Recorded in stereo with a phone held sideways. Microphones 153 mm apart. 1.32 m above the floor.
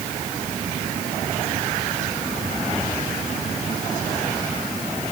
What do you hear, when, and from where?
Only background noise.